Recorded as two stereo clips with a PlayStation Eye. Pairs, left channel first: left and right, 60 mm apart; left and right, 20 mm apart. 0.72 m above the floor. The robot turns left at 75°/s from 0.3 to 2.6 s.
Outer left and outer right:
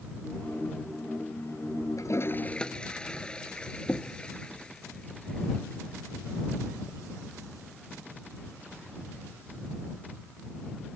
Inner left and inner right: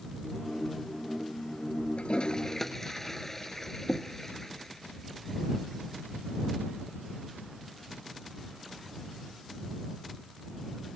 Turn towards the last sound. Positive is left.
turn(degrees=15)  # may be behind; listen again after turning